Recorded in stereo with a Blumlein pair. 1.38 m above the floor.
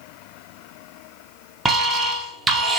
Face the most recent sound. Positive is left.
turn(degrees=-10)